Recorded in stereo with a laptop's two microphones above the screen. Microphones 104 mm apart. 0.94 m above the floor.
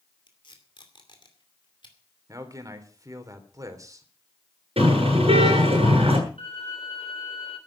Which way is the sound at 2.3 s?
35° right (ahead or behind).